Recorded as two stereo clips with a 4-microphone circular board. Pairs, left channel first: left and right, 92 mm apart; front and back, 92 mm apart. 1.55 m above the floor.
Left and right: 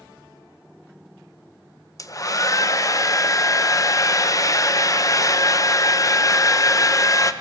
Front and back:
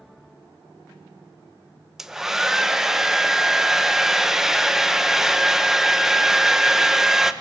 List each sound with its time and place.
2.0 s a hair dryer: 100° left, 0.7 m